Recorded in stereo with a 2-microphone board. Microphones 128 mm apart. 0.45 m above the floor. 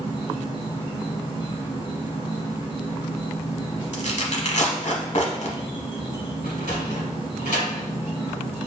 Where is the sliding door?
70° left (ahead or behind), 1.4 m.